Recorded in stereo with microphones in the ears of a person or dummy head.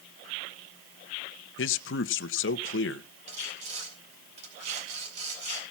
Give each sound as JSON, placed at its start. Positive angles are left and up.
{"t": 1.6, "sound": "a man speaking", "side_deg": 65, "distance_m": 0.9}
{"t": 3.3, "sound": "sawing", "side_deg": -35, "distance_m": 4.0}